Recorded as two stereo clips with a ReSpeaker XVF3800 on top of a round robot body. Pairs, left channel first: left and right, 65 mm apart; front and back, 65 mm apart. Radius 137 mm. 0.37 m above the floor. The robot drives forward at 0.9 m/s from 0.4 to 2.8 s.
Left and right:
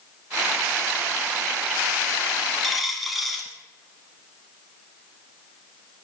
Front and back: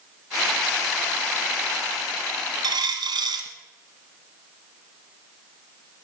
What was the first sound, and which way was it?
A dropped coin, straight behind.